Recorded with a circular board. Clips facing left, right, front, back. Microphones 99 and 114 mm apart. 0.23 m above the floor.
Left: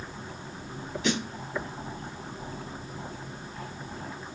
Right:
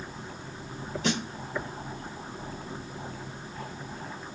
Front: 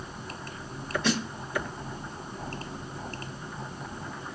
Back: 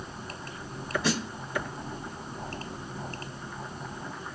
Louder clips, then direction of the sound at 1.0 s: Left 1 dB, front 2 dB; 100° right.